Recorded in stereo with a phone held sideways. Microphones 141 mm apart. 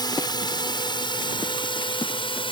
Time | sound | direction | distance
0.0 | a drone | 30° left (ahead or behind) | ?